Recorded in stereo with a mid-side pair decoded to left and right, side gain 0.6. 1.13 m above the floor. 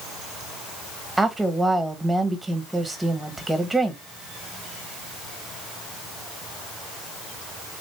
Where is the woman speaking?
10° right, 1.0 m.